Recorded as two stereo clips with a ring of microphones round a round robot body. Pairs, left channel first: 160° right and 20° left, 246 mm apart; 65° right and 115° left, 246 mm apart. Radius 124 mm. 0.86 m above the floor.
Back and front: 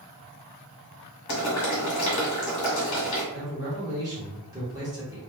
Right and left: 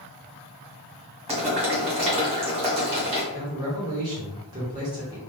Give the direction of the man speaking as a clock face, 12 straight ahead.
10 o'clock.